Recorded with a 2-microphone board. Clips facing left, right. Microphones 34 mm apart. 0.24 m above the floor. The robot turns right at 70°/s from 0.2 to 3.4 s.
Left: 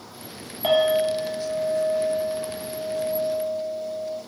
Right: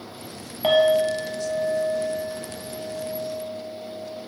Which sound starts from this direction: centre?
A clink, at 0.6 s.